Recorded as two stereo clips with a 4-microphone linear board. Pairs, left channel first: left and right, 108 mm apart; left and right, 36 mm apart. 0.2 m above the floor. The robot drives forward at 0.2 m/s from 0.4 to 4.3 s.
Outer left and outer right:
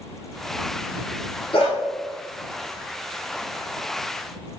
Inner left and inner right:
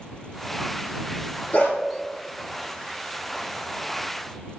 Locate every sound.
1.5 s a dog barking: 55° left (ahead or behind), 1.3 m; by 1.8 s 50° left (ahead or behind), 1.3 m